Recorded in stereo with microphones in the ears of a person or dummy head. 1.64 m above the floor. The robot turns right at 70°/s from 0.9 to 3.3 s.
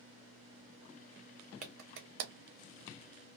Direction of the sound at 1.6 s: 45° right (ahead or behind).